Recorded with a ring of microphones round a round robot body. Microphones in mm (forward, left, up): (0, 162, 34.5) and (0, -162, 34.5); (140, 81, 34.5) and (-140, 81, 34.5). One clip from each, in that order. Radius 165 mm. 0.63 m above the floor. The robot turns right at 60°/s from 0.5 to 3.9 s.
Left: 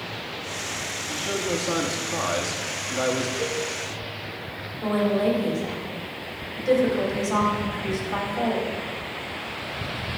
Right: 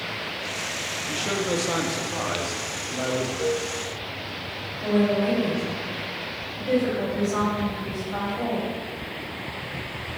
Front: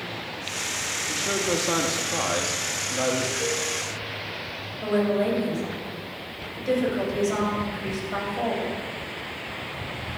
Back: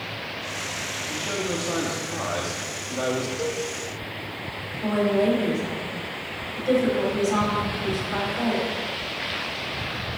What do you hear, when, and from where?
1.1 s a man speaking: 50° right, 1.0 m; by 3.3 s 80° left, 1.0 m
3.4 s a cowbell: 165° left, 1.4 m; by 3.6 s straight behind, 1.4 m
4.8 s a woman speaking: 60° left, 4 m